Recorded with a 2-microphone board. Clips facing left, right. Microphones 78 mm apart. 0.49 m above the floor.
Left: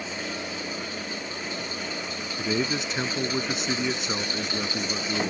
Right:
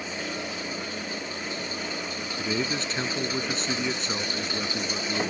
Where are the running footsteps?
No running footsteps in this recording.